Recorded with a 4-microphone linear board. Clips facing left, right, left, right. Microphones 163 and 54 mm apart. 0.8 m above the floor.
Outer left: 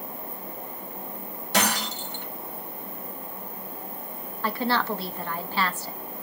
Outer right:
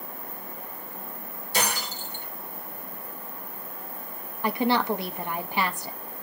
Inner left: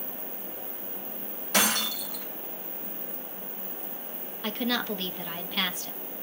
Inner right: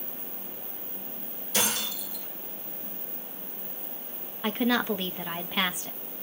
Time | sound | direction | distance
1.5 | breaking glass | 75° left (ahead or behind) | 3 m
4.4 | a woman speaking | 15° right (ahead or behind) | 0.8 m